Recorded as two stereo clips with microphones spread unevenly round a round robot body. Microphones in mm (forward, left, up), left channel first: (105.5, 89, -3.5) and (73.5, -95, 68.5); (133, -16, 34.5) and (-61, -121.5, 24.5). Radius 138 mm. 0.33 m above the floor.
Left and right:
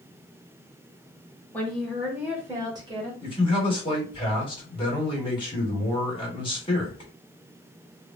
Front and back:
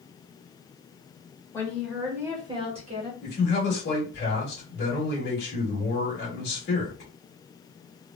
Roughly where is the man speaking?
Ahead left.